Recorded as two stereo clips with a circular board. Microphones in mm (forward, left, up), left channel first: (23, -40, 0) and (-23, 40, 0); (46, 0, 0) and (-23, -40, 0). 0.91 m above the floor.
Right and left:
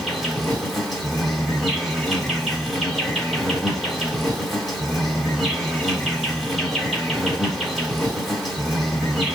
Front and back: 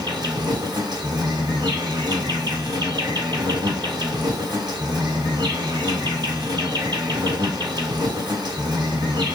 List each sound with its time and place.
0.0 s an insect: 150° right, 1.4 m